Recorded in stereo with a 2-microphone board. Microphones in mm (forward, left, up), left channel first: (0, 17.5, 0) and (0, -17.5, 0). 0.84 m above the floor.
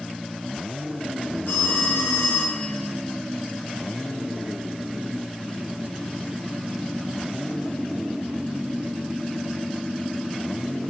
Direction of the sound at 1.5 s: 85° left.